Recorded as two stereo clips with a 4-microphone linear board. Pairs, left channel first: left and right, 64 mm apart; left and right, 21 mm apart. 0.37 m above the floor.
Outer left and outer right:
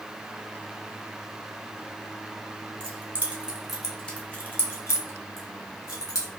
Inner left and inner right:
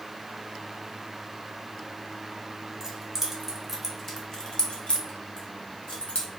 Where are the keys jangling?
30° right (ahead or behind), 0.9 m; by 6.3 s 70° left (ahead or behind), 1.3 m.